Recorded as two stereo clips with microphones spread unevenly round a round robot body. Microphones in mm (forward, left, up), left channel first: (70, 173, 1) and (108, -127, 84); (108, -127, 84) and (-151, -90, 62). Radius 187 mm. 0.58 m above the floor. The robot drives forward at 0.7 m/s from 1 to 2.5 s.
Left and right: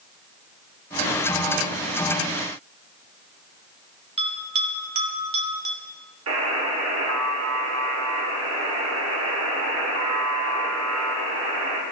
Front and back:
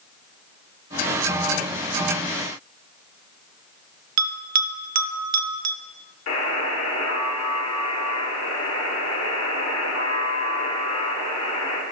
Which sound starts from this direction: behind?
A bell, at 4.2 s.